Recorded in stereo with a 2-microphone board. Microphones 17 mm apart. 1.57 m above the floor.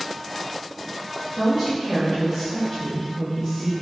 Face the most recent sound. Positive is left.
turn(degrees=5)  # may be behind; listen again after turning